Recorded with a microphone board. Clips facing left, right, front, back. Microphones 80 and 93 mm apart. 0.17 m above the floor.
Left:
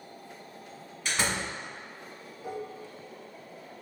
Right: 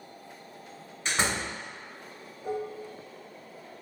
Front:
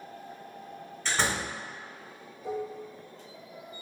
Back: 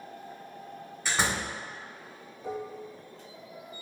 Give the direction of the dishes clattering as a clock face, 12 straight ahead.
7 o'clock.